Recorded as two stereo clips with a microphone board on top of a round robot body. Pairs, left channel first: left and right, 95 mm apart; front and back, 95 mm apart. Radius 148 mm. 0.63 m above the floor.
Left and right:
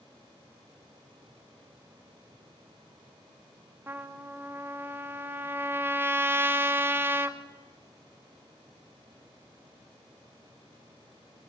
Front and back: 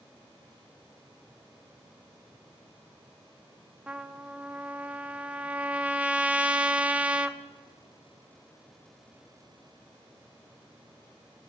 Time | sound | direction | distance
3.9 | a trumpet | 120° right | 1.0 m